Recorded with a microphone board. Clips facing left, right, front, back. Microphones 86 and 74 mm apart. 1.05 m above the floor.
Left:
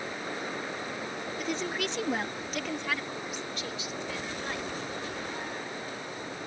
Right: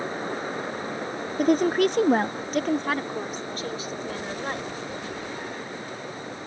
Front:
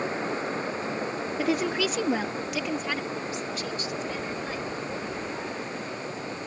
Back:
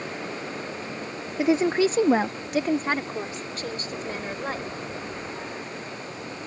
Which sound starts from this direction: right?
A woman speaking, at 1.4 s.